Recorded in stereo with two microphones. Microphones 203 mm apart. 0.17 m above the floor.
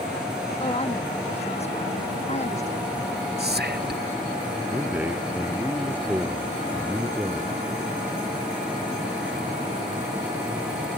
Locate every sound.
0.6 s a woman speaking: 30° left (ahead or behind); by 3.0 s 35° left (ahead or behind)
3.4 s whispering: 55° right (ahead or behind)
4.7 s a man speaking: 10° right (ahead or behind)